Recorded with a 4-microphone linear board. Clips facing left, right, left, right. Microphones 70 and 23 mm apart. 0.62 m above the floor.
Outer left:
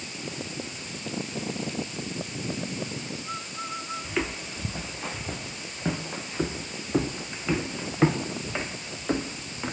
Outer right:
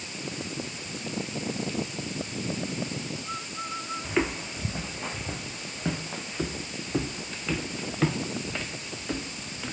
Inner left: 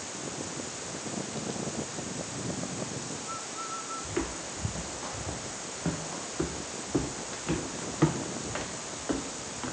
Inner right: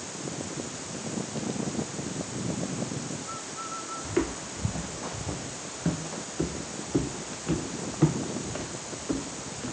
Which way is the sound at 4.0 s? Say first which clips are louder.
Outer right 4 dB, inner right 7 dB; 15° right (ahead or behind).